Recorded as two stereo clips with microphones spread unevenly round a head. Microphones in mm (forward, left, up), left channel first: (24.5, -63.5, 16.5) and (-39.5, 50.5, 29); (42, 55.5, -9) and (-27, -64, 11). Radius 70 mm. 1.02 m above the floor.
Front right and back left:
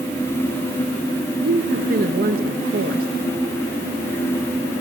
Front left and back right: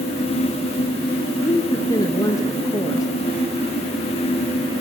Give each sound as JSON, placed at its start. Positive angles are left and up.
{"t": 1.4, "sound": "a woman speaking", "azimuth_deg": 125, "distance_m": 0.9}